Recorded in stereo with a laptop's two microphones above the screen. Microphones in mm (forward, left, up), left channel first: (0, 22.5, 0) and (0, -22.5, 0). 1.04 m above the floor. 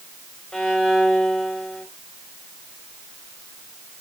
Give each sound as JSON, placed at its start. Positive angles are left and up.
{"t": 0.5, "sound": "a violin", "side_deg": 20, "distance_m": 3.5}